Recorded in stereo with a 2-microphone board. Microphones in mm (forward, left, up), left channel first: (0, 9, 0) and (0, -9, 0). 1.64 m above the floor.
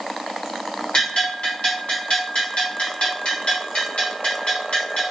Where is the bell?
75° left (ahead or behind), 1.2 m.